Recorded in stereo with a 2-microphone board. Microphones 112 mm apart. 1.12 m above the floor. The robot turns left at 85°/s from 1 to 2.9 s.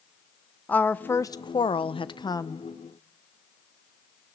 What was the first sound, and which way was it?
A woman speaking, 160° left.